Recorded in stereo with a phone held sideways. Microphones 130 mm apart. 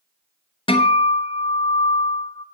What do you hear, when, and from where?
0.7 s a guitar: 45° left (ahead or behind), 0.8 m